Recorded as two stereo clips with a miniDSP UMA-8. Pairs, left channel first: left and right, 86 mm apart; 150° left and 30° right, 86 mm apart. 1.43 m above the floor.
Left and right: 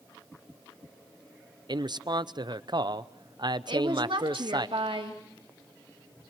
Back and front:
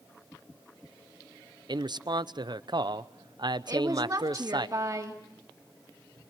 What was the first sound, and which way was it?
A man speaking, 60° right.